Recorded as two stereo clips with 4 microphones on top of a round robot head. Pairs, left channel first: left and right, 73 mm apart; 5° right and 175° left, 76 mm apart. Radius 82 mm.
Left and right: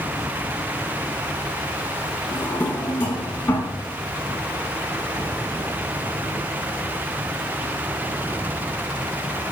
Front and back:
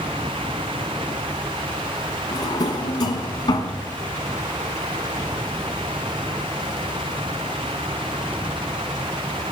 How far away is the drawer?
About 2.5 m.